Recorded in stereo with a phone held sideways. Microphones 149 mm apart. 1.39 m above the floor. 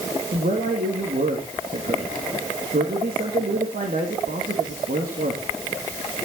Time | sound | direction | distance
0.3 | a man speaking | 80° right | 2.5 m